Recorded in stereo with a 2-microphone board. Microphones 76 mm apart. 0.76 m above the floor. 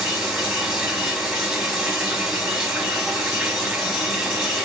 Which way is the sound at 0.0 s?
5° right (ahead or behind).